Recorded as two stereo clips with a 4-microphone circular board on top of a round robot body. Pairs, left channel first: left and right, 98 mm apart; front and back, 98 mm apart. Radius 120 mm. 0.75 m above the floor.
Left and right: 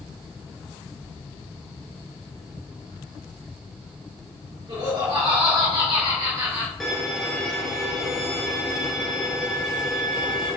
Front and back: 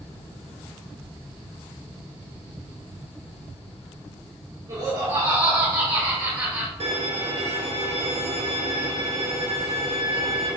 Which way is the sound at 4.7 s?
140° right.